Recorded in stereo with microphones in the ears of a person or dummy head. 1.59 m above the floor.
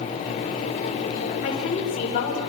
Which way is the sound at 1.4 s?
35° left (ahead or behind).